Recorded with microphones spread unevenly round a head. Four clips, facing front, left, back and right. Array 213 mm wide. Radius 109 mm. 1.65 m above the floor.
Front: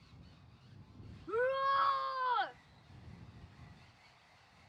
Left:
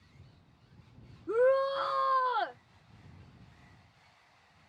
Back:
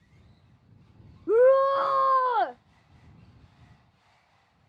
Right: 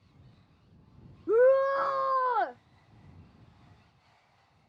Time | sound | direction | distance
1.3 | a shout | 150° right | ?